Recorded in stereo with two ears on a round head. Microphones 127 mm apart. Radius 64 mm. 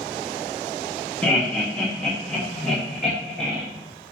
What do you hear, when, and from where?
1.2 s laughter: 10° left (ahead or behind), 0.8 m; by 3.6 s centre (ahead or behind), 1.5 m